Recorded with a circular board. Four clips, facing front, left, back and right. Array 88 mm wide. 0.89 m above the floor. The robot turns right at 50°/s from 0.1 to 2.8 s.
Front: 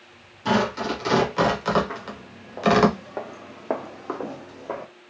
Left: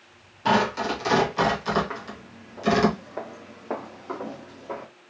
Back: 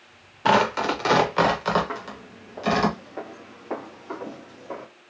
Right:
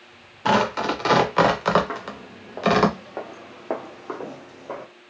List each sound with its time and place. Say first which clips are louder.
0.5 s tearing paper: right 2 dB, back 3 dB; 160° right, 1.1 m; by 2.9 s 40° right, 1.1 m
1.9 s footsteps: right 4 dB, back 1 dB; 110° right, 1.6 m; by 4.9 s 10° right, 1.9 m